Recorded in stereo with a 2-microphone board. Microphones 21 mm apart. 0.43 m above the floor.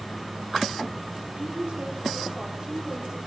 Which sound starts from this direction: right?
A woman speaking, at 1.4 s.